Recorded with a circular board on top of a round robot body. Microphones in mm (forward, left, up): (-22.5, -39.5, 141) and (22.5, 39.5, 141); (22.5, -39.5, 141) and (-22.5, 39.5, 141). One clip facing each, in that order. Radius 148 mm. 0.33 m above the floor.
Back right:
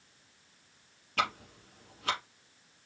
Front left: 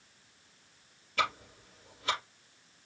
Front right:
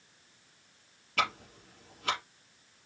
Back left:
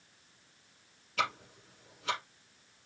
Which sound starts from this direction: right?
Ticking, at 1.2 s.